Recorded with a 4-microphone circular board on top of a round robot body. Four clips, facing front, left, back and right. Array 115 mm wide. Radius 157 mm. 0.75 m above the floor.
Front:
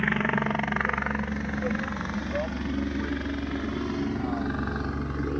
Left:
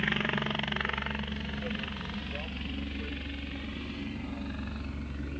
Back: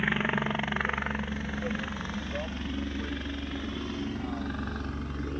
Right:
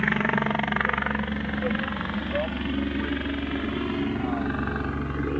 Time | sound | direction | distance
0.0 | a helicopter | 65° right | ?